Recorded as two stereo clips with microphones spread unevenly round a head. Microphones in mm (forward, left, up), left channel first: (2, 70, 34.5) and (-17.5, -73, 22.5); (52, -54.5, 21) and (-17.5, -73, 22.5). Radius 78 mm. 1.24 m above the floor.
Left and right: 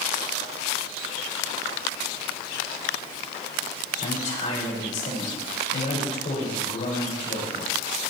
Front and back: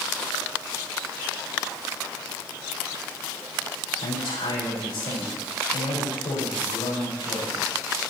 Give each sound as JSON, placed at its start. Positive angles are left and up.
{"t": 4.0, "sound": "a man speaking", "azimuth_deg": 40, "distance_m": 5.5}